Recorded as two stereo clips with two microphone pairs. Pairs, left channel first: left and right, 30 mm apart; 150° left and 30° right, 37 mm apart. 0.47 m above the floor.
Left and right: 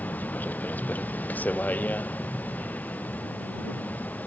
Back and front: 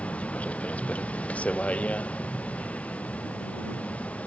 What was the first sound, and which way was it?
A vehicle, 100° left.